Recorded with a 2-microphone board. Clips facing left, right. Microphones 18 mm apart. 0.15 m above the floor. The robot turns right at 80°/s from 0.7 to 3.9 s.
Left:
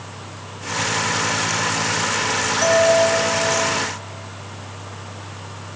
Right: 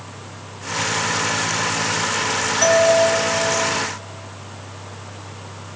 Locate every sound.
2.6 s a doorbell: 25° right (ahead or behind), 1.8 m; by 2.9 s 35° right (ahead or behind), 1.8 m